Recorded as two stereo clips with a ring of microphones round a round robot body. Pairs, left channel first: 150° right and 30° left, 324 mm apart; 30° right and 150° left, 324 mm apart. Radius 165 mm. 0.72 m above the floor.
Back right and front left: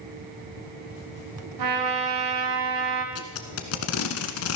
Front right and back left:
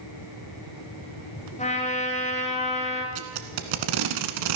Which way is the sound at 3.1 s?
165° left.